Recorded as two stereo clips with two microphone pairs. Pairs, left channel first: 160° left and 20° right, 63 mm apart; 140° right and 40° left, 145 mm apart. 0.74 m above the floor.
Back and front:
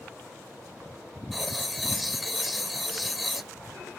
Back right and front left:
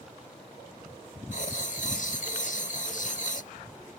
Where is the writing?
115° right.